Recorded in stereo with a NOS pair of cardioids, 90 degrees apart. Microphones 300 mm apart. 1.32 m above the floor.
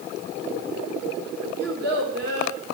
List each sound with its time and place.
1.6 s a child speaking: 55° right, 2 m